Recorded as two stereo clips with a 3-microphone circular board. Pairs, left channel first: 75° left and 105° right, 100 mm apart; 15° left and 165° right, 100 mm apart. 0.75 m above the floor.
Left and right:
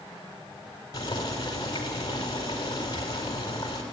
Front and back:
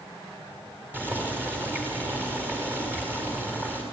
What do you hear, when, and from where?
0.9 s boiling: 125° left, 5 m